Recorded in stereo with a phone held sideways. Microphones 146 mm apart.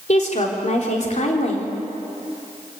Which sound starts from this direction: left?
A woman speaking, at 0.1 s.